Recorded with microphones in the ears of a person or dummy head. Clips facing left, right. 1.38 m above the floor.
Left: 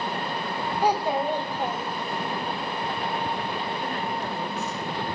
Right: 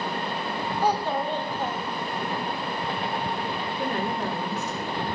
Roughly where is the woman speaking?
Right.